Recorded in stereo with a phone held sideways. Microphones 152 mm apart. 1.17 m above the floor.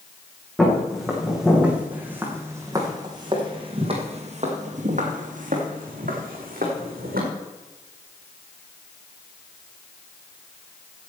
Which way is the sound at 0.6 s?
5° left (ahead or behind).